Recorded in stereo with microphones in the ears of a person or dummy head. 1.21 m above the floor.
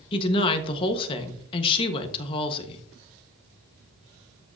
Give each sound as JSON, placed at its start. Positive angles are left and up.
{"t": 0.1, "sound": "a woman speaking", "side_deg": 30, "distance_m": 1.3}